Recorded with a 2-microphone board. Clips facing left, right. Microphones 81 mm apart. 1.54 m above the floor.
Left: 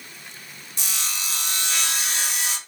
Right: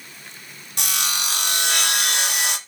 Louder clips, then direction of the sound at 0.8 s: Right 6 dB; 65° right (ahead or behind).